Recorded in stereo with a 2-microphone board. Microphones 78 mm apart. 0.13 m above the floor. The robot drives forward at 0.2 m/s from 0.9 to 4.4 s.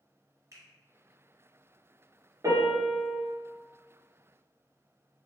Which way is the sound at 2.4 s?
45° right (ahead or behind).